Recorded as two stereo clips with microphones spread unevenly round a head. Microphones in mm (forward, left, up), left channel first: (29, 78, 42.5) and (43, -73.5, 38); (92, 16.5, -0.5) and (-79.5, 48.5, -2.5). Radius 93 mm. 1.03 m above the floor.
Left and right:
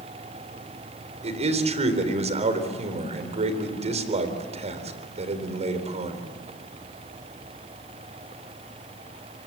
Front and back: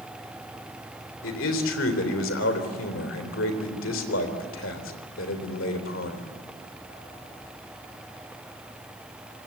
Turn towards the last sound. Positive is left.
turn(degrees=-40)